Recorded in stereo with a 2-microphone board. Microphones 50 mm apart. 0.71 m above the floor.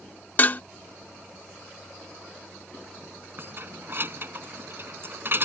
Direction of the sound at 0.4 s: 40° left (ahead or behind).